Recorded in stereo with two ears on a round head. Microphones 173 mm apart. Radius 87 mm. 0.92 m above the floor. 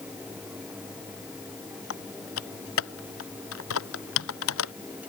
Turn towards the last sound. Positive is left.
turn(degrees=80)